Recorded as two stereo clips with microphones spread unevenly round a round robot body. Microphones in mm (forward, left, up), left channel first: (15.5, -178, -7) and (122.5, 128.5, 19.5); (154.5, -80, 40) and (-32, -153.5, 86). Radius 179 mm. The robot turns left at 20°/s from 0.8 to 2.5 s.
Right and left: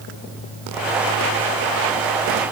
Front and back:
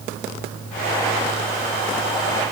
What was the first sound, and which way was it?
Only background noise.